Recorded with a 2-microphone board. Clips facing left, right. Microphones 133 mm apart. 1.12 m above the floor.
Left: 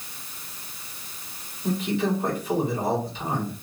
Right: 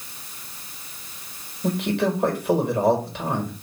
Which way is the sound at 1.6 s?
70° right (ahead or behind).